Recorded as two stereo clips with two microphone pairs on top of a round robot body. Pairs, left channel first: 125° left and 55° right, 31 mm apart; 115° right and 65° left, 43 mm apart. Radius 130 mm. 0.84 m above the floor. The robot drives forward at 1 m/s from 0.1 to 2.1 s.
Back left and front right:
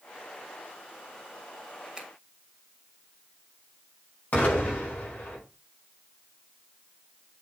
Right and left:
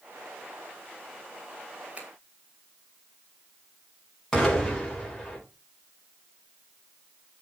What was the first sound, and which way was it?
A finger snap, straight ahead.